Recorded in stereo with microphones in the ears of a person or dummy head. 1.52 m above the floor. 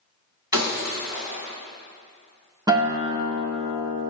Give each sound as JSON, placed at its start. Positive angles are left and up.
{"t": 0.5, "sound": "breaking glass", "side_deg": -20, "distance_m": 3.5}
{"t": 2.7, "sound": "a guitar", "side_deg": -15, "distance_m": 0.8}